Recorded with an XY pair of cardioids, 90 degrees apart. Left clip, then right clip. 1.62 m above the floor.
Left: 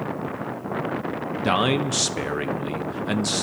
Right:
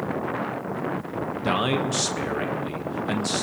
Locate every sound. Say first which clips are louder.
1.4 s a man speaking: left 3 dB; 30° left, 1.2 m